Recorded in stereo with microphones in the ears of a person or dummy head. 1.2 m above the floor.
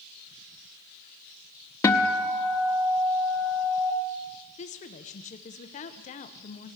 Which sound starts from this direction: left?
A woman speaking, at 4.6 s.